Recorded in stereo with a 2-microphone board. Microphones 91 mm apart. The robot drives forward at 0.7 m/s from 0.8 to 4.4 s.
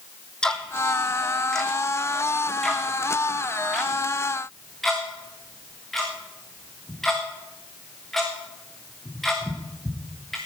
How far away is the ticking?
About 1.4 m.